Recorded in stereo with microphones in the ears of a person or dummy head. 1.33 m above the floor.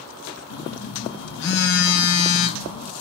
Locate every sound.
0.5 s a phone buzzing: 60° left (ahead or behind), 0.6 m